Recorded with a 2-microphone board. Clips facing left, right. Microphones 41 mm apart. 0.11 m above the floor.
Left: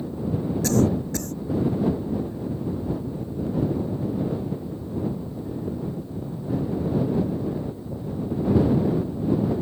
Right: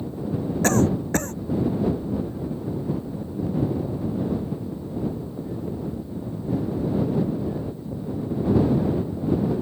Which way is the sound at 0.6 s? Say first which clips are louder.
Right 1 dB; 45° right (ahead or behind).